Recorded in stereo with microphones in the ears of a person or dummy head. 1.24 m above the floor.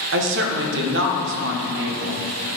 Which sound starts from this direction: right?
A woman speaking, at 0.1 s.